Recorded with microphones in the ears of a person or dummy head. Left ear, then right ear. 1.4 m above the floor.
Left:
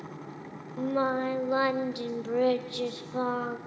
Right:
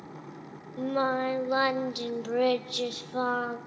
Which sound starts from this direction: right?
Singing, at 0.8 s.